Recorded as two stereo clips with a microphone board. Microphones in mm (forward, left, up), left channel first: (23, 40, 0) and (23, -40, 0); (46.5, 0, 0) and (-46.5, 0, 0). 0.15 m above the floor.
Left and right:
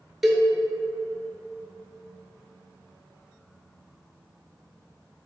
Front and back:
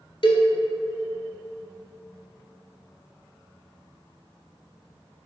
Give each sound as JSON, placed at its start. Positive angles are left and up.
{"t": 0.2, "sound": "a cowbell", "azimuth_deg": -5, "distance_m": 0.6}